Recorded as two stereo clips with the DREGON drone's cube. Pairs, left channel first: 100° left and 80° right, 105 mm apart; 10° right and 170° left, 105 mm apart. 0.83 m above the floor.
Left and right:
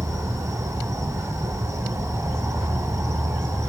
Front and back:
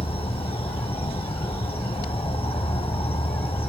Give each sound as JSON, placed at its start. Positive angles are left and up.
{"t": 0.0, "sound": "an insect", "azimuth_deg": -20, "distance_m": 1.0}